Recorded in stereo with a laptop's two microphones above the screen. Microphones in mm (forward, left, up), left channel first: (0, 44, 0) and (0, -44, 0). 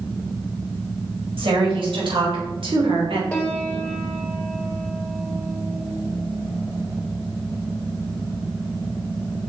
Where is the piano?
15° left (ahead or behind), 1.1 m.